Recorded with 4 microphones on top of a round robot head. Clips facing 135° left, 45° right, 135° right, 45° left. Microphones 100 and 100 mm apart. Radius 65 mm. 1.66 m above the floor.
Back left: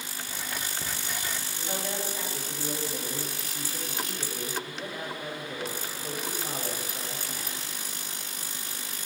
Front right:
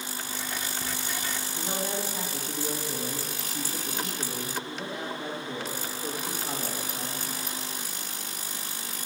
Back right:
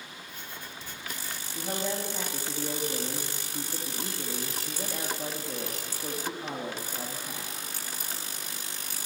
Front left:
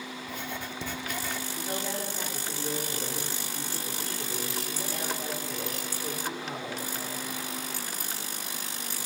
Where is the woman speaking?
115° right, 2.5 m.